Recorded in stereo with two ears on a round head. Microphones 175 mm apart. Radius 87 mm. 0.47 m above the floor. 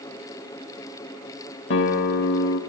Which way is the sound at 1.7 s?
65° left (ahead or behind).